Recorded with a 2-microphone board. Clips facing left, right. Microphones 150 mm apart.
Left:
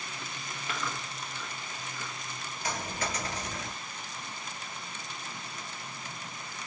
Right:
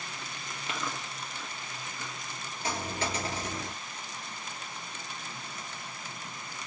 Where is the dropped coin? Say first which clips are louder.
Right 2 dB; 30° right (ahead or behind), 1.3 m.